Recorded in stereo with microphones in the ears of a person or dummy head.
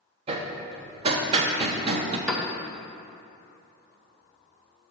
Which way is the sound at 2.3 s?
5° left (ahead or behind).